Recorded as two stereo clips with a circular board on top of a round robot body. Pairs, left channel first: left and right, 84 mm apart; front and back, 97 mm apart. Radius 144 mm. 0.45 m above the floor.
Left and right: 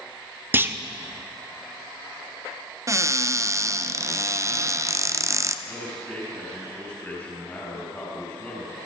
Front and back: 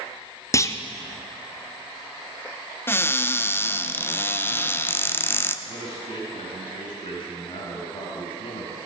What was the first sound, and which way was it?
A clunk, 40° right.